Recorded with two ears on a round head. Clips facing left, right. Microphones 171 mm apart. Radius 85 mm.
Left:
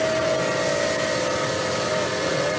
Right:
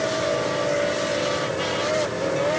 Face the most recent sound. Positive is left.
No sound to turn to.